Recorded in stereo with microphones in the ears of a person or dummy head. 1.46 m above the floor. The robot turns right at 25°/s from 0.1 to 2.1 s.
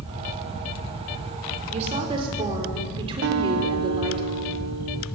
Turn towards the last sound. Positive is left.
turn(degrees=-55)  # may be behind; listen again after turning